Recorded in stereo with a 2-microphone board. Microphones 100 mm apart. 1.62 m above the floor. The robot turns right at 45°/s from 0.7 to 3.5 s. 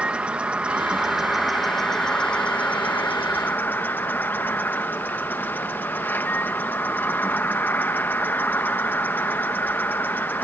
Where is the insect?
10° right (ahead or behind); by 10.4 s 20° left (ahead or behind).